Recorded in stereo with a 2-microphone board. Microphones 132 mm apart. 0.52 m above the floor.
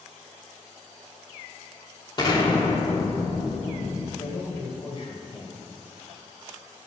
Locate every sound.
2.2 s an explosion: 35° left (ahead or behind), 1.2 m
4.2 s a man speaking: 45° left (ahead or behind), 3 m